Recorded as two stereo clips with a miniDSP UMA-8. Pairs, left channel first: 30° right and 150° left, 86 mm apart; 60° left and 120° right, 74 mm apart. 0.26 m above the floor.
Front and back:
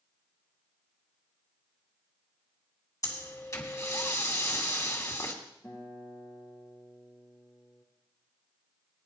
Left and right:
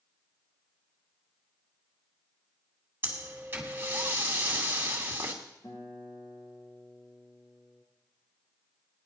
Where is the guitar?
30° left, 4 m.